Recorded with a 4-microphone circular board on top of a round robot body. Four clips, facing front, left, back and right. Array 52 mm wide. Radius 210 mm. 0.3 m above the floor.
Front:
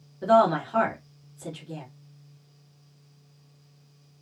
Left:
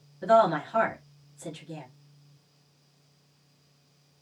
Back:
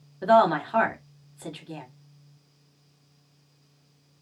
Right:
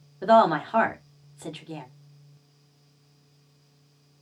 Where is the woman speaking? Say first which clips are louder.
Right 3 dB, back 1 dB; 125° right, 1.3 m.